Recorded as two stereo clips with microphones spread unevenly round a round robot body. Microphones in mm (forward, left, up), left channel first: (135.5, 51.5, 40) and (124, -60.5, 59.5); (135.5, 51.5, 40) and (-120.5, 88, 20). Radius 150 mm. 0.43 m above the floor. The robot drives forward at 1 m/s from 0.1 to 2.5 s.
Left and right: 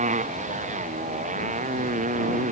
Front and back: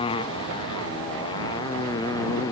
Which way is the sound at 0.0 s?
85° right.